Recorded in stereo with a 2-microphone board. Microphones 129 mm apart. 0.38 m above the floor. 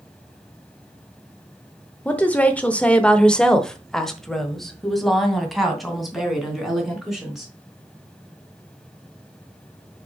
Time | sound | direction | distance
2.0 | a woman speaking | 10° left (ahead or behind) | 1.0 m